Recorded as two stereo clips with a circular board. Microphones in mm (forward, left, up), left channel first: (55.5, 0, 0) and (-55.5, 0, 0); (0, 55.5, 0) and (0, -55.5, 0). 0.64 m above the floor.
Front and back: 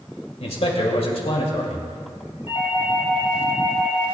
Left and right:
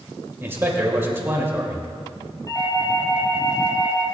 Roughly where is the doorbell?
Ahead left.